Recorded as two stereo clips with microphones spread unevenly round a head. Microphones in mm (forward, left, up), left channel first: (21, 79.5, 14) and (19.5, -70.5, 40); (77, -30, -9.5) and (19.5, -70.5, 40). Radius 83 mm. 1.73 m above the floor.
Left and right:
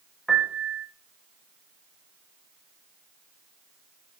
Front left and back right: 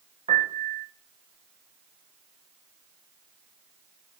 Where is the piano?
Straight behind, 1.8 m.